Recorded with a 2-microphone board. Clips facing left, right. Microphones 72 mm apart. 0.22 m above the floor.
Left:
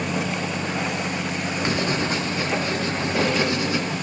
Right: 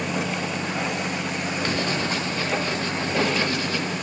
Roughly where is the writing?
Centre.